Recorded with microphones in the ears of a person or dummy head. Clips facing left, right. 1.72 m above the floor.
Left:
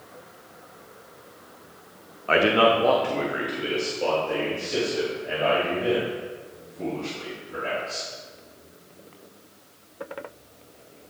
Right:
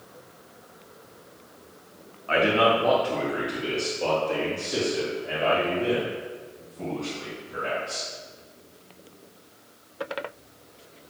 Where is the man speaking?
60° left (ahead or behind), 0.6 m; by 8.1 s 10° right (ahead or behind), 3 m.